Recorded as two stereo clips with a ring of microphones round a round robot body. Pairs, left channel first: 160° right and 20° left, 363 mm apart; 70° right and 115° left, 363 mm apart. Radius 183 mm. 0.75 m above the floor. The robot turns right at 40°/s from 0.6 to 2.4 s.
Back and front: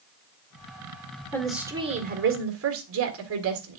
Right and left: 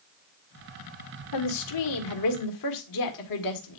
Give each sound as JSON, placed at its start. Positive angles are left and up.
{"t": 1.3, "sound": "a woman speaking", "azimuth_deg": -75, "distance_m": 1.8}